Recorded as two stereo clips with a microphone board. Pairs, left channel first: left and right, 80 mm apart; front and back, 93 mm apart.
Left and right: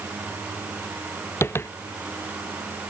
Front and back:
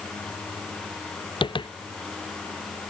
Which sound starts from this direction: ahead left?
Tapping, at 1.4 s.